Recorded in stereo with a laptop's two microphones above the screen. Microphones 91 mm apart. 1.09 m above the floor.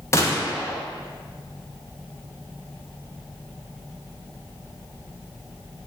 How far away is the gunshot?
About 0.8 m.